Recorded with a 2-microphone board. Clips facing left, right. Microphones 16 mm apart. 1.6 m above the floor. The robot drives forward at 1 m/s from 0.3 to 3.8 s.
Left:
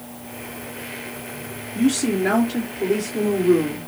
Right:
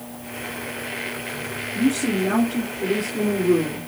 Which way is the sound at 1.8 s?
75° left (ahead or behind).